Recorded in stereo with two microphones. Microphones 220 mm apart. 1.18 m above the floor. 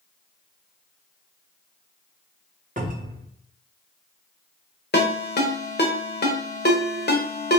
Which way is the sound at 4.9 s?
45° left (ahead or behind).